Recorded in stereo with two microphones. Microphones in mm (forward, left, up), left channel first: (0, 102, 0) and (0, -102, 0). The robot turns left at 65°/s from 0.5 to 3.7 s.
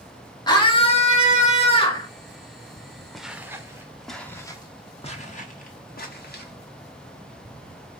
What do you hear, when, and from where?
0.5 s a scream: 140° left, 1.8 m; by 2.1 s 35° left, 1.8 m
3.1 s footsteps: centre (ahead or behind), 0.9 m; by 6.5 s 50° left (ahead or behind), 1.8 m